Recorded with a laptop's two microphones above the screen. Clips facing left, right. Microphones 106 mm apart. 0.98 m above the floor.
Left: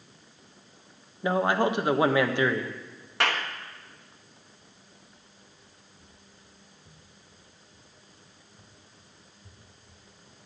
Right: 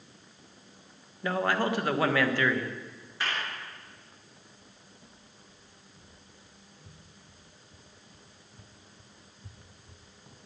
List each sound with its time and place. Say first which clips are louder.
1.2 s a man speaking: left 4 dB; 20° left (ahead or behind), 1.2 m
3.2 s a clap: left 6 dB; 65° left (ahead or behind), 1.1 m
4.6 s footsteps: right 1 dB; 75° right (ahead or behind), 8 m; by 10.4 s 40° right (ahead or behind), 2.5 m